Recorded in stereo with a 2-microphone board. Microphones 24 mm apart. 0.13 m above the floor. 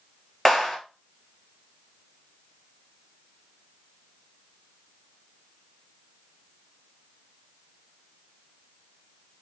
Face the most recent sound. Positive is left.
turn(degrees=5)  # may be behind; listen again after turning